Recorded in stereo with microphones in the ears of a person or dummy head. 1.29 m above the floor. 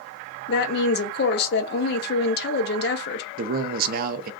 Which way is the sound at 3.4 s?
50° right (ahead or behind).